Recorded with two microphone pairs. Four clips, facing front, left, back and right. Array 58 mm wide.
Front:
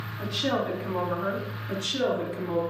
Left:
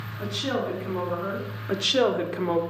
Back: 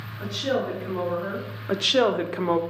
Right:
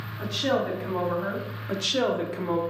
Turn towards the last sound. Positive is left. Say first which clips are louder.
# left 3 dB, back 6 dB
turn(degrees=165)